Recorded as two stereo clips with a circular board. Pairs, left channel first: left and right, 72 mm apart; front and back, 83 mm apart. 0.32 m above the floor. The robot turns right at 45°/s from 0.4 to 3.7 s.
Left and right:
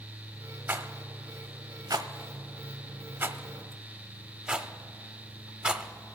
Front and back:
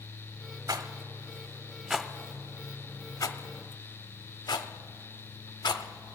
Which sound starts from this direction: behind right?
A rattle, at 0.7 s.